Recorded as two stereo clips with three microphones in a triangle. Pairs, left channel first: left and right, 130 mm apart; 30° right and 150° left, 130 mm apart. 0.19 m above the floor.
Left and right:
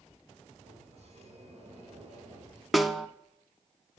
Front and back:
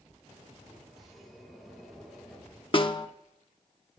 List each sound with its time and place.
0.6 s a sliding door: 120° right, 3 m
2.7 s a snare drum: straight ahead, 0.6 m